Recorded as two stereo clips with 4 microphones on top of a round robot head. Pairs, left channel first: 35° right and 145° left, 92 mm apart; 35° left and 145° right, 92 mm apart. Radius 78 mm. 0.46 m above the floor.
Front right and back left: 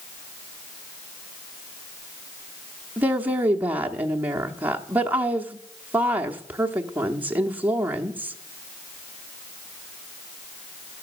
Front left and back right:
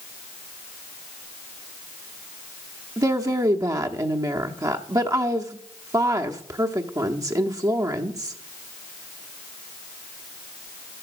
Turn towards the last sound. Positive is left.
turn(degrees=-155)